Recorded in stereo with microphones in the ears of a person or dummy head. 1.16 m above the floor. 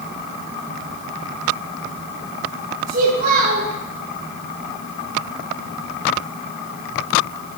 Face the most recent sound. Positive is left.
turn(degrees=-45)  # may be behind; listen again after turning